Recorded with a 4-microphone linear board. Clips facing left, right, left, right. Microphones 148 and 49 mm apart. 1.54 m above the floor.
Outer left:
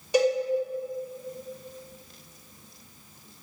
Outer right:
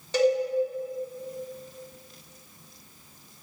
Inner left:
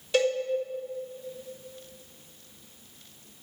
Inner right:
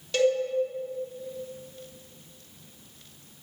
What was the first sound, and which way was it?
A cowbell, 10° left (ahead or behind).